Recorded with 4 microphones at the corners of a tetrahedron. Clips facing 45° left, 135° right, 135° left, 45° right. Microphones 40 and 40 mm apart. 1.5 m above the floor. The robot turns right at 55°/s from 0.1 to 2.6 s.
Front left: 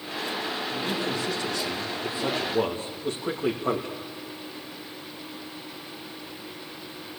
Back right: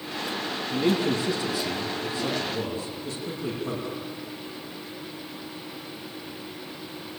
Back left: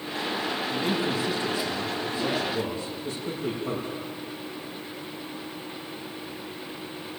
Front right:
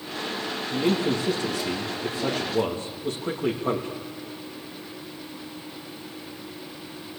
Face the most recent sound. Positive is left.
turn(degrees=5)